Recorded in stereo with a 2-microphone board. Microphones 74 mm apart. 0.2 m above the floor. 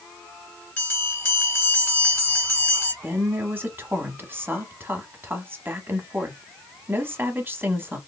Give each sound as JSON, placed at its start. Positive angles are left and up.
{"t": 0.8, "sound": "a bell", "side_deg": 30, "distance_m": 2.5}
{"t": 3.0, "sound": "a woman speaking", "side_deg": -30, "distance_m": 1.2}